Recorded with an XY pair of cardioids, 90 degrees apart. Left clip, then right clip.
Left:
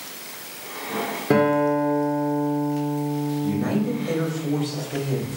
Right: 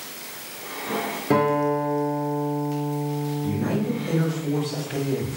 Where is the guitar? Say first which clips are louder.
Left 2 dB; 25° left, 1.5 m.